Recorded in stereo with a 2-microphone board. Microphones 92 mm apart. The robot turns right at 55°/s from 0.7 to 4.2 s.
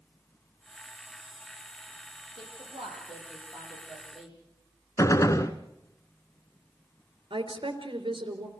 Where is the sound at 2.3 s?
75° right (ahead or behind), 8 m; by 4.4 s 5° right (ahead or behind), 8 m.